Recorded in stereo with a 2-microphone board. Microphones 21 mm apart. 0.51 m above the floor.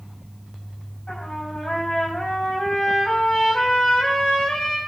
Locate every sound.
1.1 s a trumpet: 50° left (ahead or behind), 5 m